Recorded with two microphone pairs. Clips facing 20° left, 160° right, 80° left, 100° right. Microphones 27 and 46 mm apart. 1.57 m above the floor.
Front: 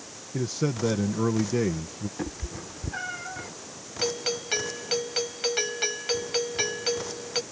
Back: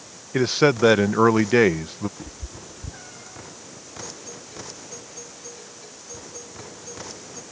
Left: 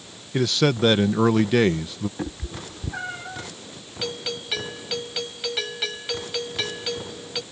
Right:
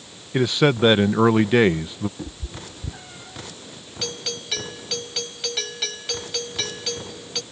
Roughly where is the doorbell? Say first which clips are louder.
Front 13 dB, left 1 dB; ahead.